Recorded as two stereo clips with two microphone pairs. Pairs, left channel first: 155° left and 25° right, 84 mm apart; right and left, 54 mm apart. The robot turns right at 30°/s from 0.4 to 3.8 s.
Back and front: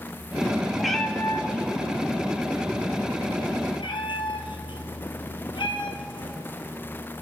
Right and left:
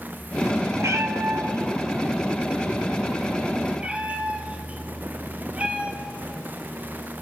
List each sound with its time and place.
0.8 s a cat meowing: 65° left, 1.4 m; by 6.3 s 155° left, 1.4 m